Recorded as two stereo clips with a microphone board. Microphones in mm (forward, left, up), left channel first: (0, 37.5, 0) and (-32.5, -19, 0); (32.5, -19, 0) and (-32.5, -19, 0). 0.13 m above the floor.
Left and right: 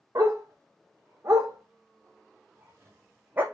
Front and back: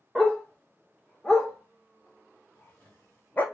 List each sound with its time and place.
0.1 s a dog barking: 85° right, 3.5 m; by 3.4 s 60° right, 1.7 m